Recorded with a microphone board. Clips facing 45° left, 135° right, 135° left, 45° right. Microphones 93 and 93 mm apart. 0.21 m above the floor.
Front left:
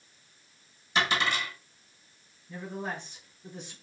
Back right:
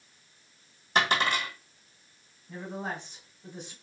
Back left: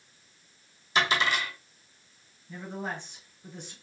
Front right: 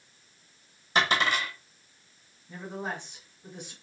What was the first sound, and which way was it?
A dropped coin, 95° right.